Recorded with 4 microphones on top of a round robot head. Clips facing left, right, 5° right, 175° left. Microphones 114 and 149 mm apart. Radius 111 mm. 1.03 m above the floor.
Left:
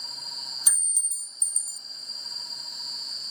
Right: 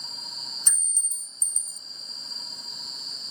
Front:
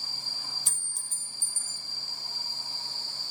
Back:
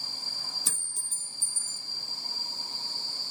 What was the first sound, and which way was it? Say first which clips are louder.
A clink: even, back 3 dB; 175° left.